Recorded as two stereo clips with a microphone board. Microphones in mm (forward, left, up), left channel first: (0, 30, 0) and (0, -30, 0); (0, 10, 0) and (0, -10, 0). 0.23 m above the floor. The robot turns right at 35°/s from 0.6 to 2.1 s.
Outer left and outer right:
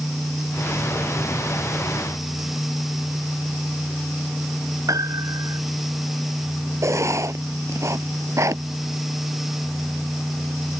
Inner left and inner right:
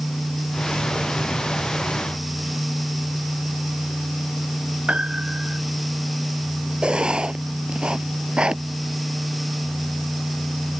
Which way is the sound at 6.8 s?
55° right (ahead or behind).